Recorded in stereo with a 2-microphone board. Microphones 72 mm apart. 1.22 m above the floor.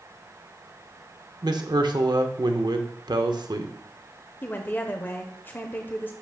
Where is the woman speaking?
25° left (ahead or behind), 0.7 m.